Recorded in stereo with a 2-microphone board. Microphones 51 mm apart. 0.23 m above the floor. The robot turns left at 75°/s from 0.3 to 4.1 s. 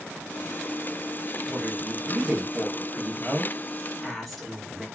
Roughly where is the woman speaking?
Centre.